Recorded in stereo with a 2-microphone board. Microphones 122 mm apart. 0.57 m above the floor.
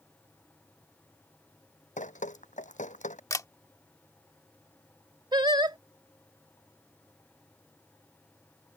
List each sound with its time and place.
2.0 s dripping: 85° left
3.3 s a camera shutter: 25° left (ahead or behind)
5.3 s singing: 35° right (ahead or behind)